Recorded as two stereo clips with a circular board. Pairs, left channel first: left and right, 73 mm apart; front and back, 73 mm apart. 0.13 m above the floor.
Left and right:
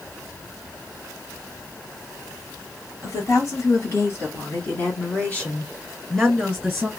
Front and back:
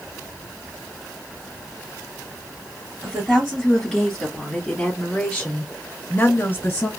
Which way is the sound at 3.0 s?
100° left.